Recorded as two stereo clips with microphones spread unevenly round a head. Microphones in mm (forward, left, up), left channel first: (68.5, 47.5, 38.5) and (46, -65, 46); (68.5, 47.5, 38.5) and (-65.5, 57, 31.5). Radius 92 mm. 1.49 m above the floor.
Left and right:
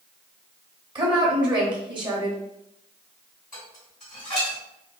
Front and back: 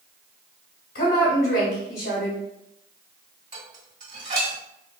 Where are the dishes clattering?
140° left, 1.8 m.